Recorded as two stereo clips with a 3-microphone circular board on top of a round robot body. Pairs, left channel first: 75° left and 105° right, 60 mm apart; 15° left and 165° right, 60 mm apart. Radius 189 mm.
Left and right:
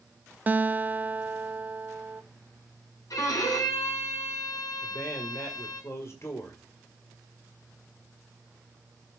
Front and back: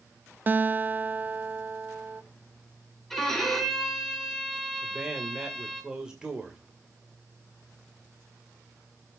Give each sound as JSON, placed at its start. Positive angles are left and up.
{"t": 0.5, "sound": "a guitar", "azimuth_deg": -140, "distance_m": 0.9}
{"t": 3.1, "sound": "a violin", "azimuth_deg": 100, "distance_m": 3.0}
{"t": 4.8, "sound": "a man speaking", "azimuth_deg": 120, "distance_m": 2.0}